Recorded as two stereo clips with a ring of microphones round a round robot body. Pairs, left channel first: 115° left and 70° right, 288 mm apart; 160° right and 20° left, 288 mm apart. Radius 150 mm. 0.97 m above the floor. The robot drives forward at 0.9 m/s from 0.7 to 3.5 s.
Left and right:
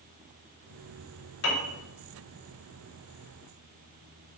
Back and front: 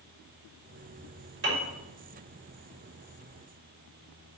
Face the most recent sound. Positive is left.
turn(degrees=120)